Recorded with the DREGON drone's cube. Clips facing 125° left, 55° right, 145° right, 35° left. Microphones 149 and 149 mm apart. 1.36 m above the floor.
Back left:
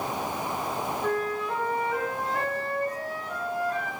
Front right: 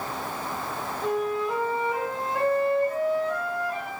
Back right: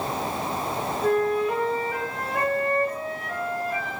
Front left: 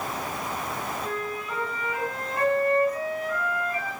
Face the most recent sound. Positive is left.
turn(degrees=-130)